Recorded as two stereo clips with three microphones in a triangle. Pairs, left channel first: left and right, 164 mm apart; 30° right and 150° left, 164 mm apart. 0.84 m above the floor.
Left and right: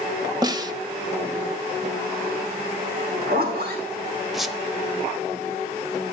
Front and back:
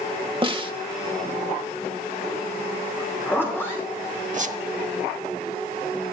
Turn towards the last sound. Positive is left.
turn(degrees=180)